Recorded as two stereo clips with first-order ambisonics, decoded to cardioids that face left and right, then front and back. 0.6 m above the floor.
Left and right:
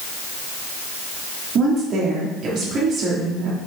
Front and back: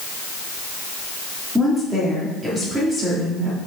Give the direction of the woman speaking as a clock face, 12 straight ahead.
4 o'clock.